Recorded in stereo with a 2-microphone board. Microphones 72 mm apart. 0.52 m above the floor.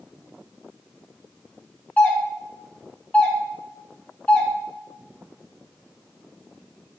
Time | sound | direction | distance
2.0 | a doorbell | 20° left (ahead or behind) | 2 m